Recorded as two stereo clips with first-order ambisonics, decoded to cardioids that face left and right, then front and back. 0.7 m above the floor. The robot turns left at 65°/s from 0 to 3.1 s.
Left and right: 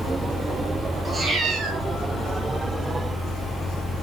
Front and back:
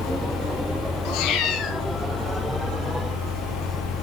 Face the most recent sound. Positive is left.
turn(degrees=-140)